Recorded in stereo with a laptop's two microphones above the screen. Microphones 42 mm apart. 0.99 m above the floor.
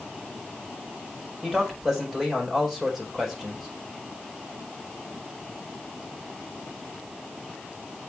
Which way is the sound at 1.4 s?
Centre (ahead or behind).